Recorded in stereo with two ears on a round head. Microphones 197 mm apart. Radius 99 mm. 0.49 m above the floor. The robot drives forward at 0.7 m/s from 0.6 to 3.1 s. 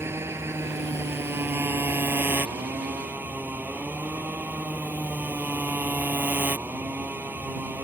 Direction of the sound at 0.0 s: 10° right (ahead or behind).